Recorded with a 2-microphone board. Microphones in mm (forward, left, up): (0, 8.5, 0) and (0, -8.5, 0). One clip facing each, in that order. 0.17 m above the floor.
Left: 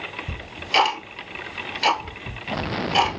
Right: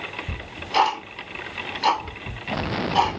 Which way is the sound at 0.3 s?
65° left (ahead or behind).